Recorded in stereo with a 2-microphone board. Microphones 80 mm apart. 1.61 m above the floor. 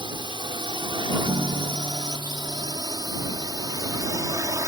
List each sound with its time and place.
0.0 s a drone: 75° right (ahead or behind); by 4.7 s 40° right (ahead or behind)
1.2 s a guitar: 75° right (ahead or behind)